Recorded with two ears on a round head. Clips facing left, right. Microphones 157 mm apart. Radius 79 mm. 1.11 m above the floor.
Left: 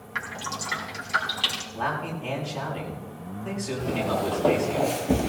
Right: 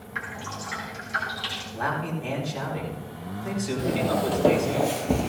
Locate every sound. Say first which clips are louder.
0.1 s dripping: left 1 dB; 65° left (ahead or behind), 3.5 m
1.8 s a man speaking: right 1 dB; 15° right (ahead or behind), 5.5 m
3.8 s footsteps: right 2 dB; 35° right (ahead or behind), 2.5 m; by 5.3 s 10° left (ahead or behind), 1.6 m